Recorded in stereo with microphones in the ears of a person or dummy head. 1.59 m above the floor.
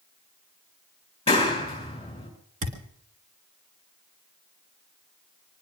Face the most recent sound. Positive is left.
turn(degrees=-40)  # may be behind; listen again after turning